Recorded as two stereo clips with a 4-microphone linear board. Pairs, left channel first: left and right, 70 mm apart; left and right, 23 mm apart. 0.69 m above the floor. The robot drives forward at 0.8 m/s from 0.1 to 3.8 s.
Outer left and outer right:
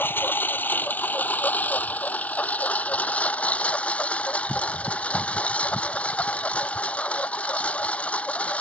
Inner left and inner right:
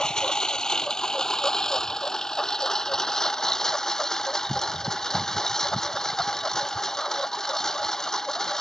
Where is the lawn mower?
30° left (ahead or behind); by 8.6 s 20° left (ahead or behind).